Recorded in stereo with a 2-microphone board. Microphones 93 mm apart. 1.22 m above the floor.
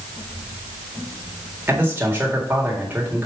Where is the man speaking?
25° right (ahead or behind), 1.9 m.